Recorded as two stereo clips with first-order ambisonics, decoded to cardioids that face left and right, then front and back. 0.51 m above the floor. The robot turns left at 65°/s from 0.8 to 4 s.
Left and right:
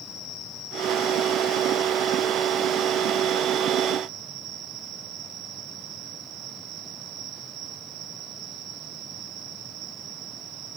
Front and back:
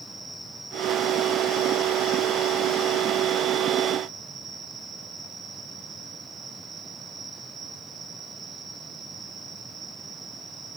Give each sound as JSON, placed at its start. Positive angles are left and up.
{"t": 0.0, "sound": "an insect", "azimuth_deg": 90, "distance_m": 4.0}